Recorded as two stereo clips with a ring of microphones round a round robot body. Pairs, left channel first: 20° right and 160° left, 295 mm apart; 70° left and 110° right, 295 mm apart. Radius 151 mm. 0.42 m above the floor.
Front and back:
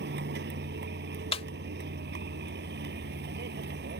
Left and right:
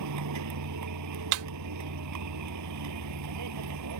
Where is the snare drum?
95° right.